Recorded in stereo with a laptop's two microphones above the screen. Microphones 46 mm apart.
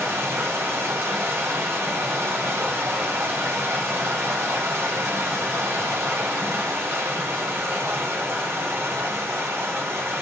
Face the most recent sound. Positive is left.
turn(degrees=-85)